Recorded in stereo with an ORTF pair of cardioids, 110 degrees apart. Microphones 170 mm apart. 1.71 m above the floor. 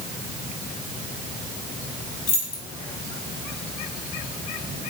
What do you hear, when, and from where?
2.3 s keys jangling: 65° left, 1.9 m